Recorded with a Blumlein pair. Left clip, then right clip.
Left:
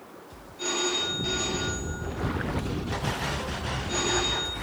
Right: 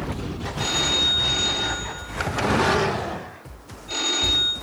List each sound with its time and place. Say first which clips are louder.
0.6 s a phone ringing: right 6 dB; 35° right, 1.6 m